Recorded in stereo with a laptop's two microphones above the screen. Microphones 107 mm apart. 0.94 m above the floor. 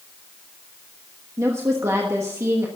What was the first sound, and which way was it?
A woman speaking, 25° right (ahead or behind).